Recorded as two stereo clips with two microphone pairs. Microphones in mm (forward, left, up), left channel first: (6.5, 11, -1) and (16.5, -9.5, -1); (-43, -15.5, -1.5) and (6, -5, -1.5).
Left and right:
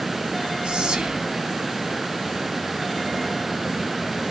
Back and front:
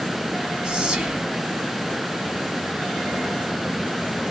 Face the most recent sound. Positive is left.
turn(degrees=-50)